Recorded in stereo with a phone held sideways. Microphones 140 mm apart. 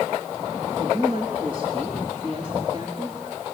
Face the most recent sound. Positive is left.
turn(degrees=-35)  # may be behind; listen again after turning